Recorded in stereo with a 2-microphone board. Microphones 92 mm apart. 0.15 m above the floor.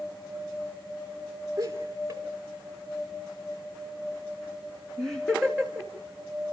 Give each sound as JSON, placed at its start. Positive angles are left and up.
{"t": 1.6, "sound": "laughter", "side_deg": -35, "distance_m": 2.5}